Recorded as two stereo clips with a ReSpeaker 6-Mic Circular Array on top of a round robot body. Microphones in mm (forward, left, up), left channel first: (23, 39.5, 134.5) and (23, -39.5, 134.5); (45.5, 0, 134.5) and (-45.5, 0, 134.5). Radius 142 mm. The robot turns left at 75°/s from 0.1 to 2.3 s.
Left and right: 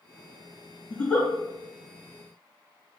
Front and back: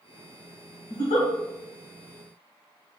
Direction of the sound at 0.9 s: 20° left.